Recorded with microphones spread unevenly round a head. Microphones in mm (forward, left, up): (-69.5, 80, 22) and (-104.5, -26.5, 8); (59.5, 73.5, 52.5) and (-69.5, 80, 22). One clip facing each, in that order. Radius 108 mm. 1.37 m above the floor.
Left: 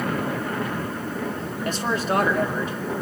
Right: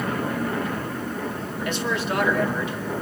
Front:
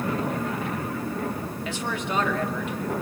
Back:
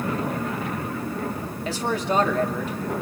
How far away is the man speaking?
About 2.5 m.